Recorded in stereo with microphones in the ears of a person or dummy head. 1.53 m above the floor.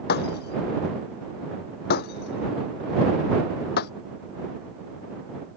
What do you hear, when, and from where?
0.1 s breaking glass: 55° left (ahead or behind)